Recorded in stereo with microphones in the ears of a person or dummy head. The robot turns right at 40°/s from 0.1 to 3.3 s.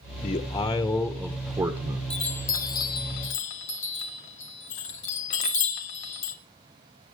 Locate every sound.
0.2 s a man speaking: 145° left, 1.2 m; by 2.0 s 145° right, 1.2 m
2.1 s a chime: centre (ahead or behind), 1.7 m; by 6.3 s 35° left (ahead or behind), 1.7 m